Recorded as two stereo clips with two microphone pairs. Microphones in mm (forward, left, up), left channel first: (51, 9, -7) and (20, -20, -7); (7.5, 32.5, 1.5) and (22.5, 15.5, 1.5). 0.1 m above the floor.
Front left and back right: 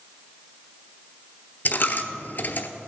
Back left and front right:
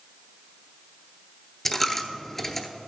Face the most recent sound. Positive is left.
turn(degrees=60)